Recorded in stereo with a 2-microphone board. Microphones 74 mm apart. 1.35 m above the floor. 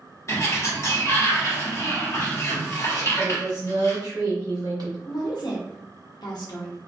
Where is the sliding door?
40° left (ahead or behind), 1.0 m.